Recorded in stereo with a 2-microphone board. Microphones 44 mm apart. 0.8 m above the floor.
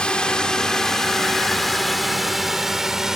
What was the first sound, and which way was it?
A drone, 20° left (ahead or behind).